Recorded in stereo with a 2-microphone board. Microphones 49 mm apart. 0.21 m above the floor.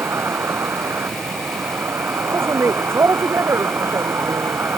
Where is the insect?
60° right (ahead or behind).